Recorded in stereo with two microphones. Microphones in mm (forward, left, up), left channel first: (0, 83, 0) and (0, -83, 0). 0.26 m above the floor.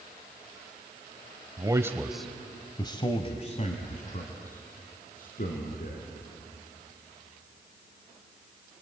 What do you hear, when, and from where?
1.6 s a man speaking: 25° right (ahead or behind), 1.3 m; by 6.1 s 60° left (ahead or behind), 4 m